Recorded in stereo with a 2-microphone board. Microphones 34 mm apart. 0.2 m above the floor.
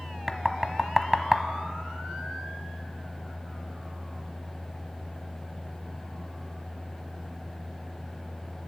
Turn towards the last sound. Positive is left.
turn(degrees=5)  # may be behind; listen again after turning